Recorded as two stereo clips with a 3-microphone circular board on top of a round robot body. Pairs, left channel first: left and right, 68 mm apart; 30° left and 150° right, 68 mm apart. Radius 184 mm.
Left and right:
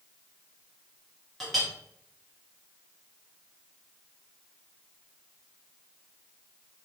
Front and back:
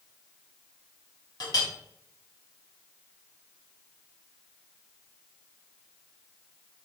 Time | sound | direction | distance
1.4 | a clink | straight ahead | 1.2 m